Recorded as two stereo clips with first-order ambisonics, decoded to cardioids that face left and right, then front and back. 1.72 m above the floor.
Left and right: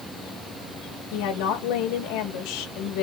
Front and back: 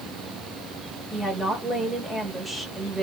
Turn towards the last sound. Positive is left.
turn(degrees=95)